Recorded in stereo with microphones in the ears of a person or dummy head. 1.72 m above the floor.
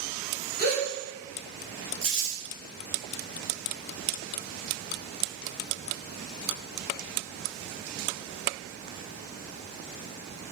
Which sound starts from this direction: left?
A gasp, at 0.6 s.